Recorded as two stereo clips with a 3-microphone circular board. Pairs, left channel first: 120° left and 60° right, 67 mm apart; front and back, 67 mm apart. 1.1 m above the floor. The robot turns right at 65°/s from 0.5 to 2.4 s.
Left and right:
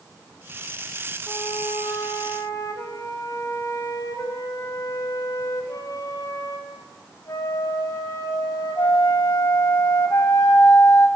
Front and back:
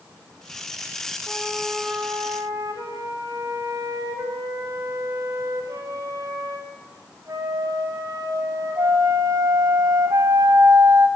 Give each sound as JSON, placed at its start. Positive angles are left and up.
{"t": 1.3, "sound": "a flute", "azimuth_deg": 70, "distance_m": 5.5}